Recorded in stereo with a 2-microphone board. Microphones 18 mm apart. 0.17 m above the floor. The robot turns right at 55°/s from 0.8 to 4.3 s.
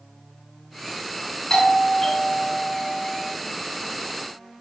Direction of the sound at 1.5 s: 135° left.